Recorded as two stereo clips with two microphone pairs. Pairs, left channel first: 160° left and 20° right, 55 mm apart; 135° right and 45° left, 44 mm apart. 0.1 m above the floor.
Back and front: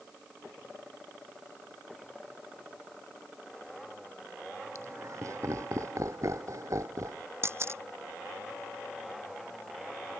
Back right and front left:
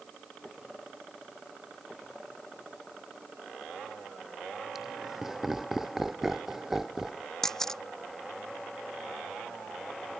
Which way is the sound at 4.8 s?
40° right.